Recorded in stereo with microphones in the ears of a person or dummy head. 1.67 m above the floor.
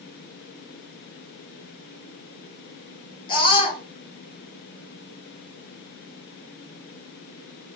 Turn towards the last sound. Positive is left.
turn(degrees=35)  # may be behind; listen again after turning